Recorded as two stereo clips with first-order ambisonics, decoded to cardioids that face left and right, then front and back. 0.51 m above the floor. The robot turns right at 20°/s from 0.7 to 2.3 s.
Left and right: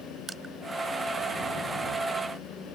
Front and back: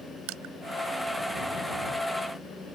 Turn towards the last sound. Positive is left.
turn(degrees=-135)